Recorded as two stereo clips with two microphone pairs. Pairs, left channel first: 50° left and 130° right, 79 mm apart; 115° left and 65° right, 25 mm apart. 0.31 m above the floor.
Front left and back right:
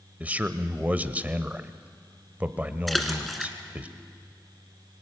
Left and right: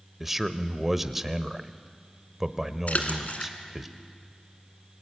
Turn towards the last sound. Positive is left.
turn(degrees=140)